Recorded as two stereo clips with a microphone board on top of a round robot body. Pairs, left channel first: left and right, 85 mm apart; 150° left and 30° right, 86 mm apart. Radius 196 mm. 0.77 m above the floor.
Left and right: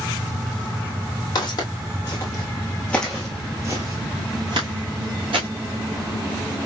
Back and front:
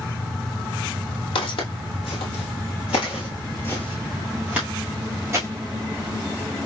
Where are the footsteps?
135° left, 1.4 m; by 5.5 s 90° right, 1.3 m.